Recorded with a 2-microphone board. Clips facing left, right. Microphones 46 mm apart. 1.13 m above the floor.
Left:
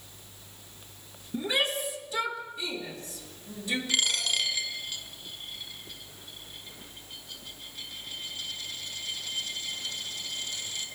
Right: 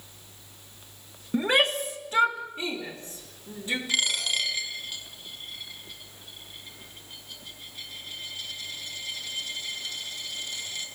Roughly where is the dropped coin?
Centre.